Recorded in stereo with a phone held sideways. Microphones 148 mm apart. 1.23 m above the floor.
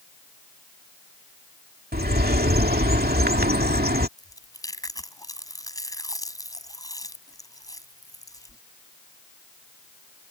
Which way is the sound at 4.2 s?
20° left (ahead or behind).